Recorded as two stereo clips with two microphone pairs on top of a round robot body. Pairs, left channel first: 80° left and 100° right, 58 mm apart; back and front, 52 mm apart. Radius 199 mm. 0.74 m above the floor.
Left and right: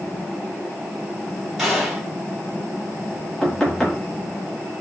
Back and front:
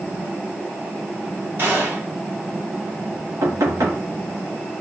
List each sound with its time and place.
1.6 s a gunshot: 20° right, 1.4 m
3.4 s knocking: 5° right, 0.8 m